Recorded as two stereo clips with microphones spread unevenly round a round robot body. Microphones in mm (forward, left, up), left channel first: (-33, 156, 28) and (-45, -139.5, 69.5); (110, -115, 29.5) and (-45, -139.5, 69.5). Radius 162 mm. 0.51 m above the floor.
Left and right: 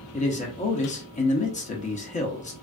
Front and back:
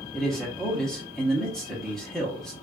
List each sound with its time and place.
0.1 s a man speaking: 70° left, 0.9 m